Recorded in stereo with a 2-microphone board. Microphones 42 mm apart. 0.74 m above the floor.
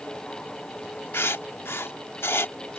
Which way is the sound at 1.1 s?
75° left (ahead or behind).